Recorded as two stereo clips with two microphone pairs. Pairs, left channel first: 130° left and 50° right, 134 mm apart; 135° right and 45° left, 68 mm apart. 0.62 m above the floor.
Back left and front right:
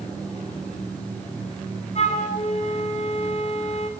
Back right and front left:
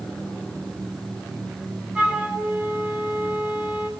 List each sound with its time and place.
1.9 s a flute: 115° left, 2.5 m